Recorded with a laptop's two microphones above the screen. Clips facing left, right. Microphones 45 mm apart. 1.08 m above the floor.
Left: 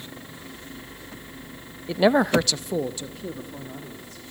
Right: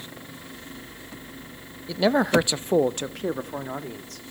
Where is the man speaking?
25° left (ahead or behind), 0.9 m; by 4.2 s 80° right, 2.5 m.